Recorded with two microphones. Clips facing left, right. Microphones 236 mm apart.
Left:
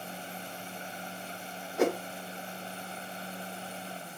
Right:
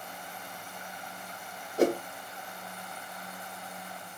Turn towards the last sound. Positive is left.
turn(degrees=-40)  # may be behind; listen again after turning